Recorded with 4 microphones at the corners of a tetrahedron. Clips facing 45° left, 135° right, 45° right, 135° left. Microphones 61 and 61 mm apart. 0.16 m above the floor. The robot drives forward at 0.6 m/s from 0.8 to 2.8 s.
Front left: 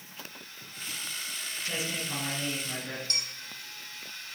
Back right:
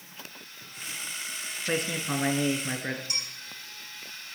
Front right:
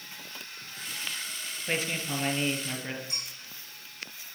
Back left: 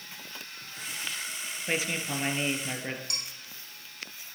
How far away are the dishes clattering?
About 5 m.